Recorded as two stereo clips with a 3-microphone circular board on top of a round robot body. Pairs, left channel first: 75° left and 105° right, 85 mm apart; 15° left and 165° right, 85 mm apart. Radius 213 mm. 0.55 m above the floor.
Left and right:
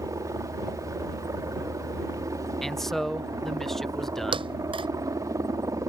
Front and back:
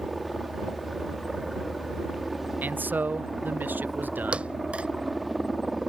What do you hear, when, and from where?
0.0 s a helicopter: 75° right
2.6 s a man speaking: 160° left
4.3 s a thud: 90° right